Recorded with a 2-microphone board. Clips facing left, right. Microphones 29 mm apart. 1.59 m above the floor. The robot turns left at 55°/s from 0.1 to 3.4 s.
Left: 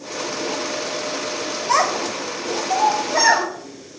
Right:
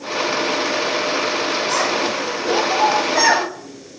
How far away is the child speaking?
About 2 m.